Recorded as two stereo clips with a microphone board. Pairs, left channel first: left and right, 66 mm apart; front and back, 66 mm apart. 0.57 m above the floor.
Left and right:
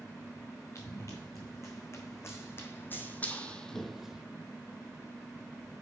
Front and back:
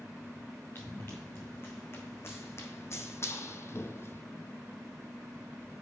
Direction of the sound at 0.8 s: 50° left.